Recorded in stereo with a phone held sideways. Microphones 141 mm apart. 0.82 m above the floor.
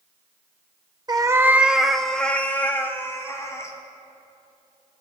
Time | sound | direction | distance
1.1 | a cat meowing | 30° right (ahead or behind) | 0.5 m